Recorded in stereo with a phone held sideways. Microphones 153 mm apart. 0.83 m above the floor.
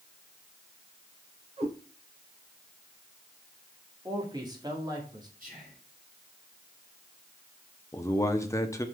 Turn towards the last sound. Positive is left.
turn(degrees=20)  # may be behind; listen again after turning